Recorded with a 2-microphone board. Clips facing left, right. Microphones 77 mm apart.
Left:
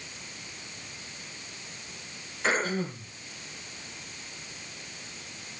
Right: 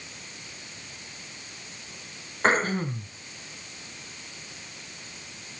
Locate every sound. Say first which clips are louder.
2.4 s throat clearing: right 4 dB; 45° right (ahead or behind), 2.5 m